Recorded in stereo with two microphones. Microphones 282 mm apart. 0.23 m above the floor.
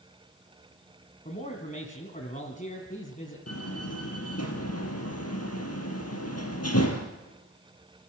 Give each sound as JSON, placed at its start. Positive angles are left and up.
{"t": 1.2, "sound": "a man speaking", "side_deg": 25, "distance_m": 2.5}
{"t": 3.5, "sound": "a door slam", "side_deg": 60, "distance_m": 3.5}